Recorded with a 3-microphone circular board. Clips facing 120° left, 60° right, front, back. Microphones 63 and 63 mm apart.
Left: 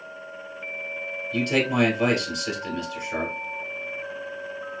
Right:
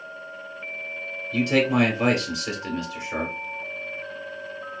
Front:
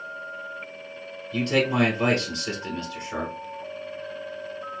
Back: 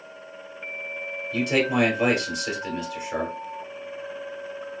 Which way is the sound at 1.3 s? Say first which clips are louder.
Right 2 dB, even; 115° right.